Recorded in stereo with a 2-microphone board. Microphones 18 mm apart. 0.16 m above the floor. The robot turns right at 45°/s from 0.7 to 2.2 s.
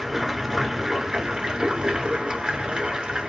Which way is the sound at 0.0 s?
160° right.